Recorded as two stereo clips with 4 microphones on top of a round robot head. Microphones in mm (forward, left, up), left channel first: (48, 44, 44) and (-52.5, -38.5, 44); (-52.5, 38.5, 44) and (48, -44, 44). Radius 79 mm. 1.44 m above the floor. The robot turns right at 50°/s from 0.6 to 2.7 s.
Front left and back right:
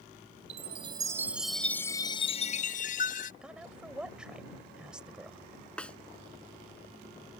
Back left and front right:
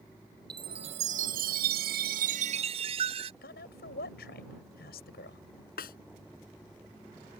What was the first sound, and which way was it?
A chime, 95° right.